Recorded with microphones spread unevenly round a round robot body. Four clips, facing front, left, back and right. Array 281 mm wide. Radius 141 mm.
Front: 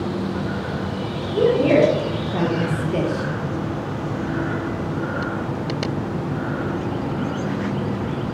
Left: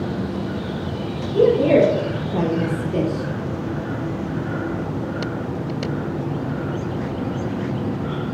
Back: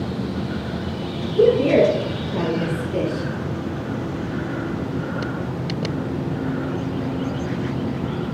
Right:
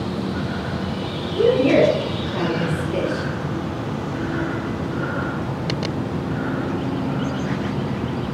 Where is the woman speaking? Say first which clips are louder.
Left 1 dB, back 1 dB; 70° left, 1.9 m; by 3.3 s straight ahead, 1.0 m.